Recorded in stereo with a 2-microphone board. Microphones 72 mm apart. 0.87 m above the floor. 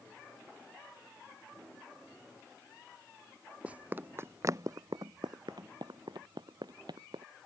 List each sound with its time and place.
3.6 s running footsteps: 15° right (ahead or behind); by 7.2 s 70° right (ahead or behind)